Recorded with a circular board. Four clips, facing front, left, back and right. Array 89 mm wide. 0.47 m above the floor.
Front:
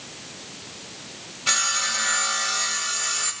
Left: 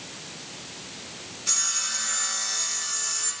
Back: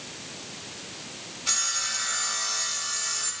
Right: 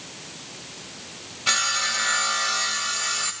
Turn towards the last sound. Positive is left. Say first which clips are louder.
# right 11 dB, front 8 dB
turn(degrees=-60)